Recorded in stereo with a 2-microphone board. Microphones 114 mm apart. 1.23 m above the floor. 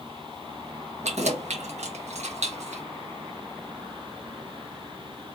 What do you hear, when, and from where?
1.0 s keys jangling: 80° right, 1.2 m